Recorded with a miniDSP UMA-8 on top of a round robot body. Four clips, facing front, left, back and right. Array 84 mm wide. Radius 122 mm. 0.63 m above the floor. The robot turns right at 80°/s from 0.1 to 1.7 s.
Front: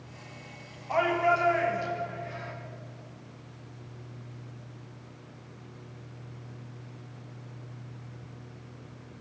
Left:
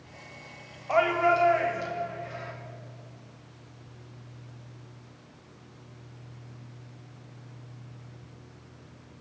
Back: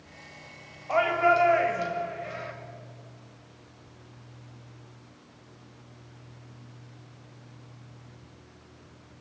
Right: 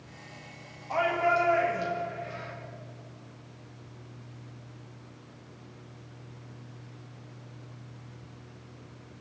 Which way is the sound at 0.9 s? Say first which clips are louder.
Left 3 dB, back 2 dB; 120° left.